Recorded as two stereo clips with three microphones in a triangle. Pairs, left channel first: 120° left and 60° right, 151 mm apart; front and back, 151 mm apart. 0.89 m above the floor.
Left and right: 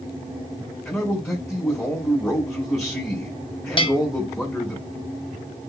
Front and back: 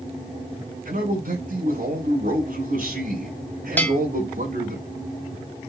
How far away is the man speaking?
About 5.5 m.